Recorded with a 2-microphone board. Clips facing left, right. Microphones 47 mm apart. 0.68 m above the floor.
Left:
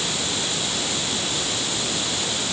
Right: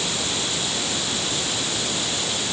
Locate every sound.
Only background noise.